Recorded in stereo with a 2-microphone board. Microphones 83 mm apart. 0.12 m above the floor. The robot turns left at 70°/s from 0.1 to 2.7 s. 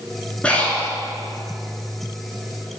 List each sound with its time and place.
0.4 s breathing: 15° left (ahead or behind), 1.7 m; by 0.9 s 25° left (ahead or behind), 1.7 m